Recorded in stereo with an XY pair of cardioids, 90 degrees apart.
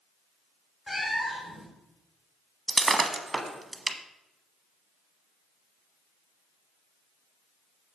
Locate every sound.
0.9 s a cat meowing: 25° left, 3 m
2.7 s breaking glass: 20° right, 0.9 m